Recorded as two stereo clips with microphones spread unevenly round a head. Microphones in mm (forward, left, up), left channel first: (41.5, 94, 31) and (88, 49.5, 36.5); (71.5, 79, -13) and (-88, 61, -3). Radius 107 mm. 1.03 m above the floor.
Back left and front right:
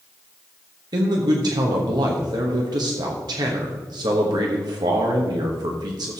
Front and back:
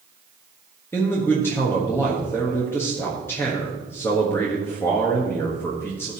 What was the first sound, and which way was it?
A man speaking, 75° right.